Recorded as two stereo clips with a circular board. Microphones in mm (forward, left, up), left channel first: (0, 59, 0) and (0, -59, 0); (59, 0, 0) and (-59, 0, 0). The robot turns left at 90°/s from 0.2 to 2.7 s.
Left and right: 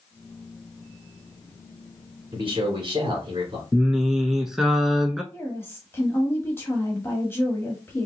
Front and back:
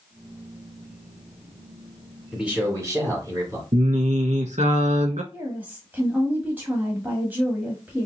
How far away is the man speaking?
About 1.6 m.